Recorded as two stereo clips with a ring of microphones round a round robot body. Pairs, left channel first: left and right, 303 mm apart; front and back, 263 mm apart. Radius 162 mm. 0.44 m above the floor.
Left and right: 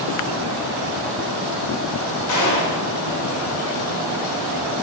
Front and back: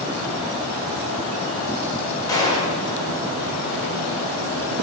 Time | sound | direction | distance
2.3 | a gunshot | 75° left | 1.7 m